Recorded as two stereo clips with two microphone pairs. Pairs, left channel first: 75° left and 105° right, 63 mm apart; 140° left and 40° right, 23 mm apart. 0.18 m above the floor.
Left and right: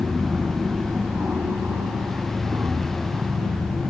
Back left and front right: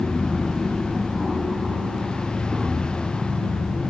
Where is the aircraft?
95° right; by 3.9 s 90° right.